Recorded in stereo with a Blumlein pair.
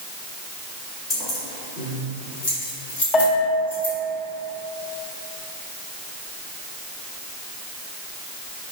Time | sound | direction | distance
1.1 | keys jangling | 20° left | 1.3 m
3.1 | a bell | 15° left | 0.8 m